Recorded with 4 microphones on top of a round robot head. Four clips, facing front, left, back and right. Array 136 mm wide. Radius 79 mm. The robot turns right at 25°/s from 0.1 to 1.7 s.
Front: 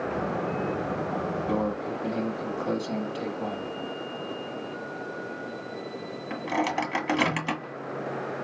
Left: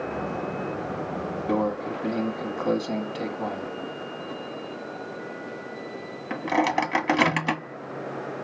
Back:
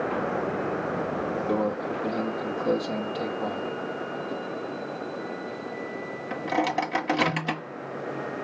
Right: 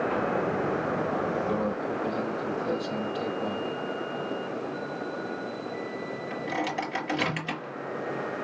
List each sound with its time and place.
1.5 s a microwave: 95° left, 1.9 m; by 7.6 s 105° left, 1.9 m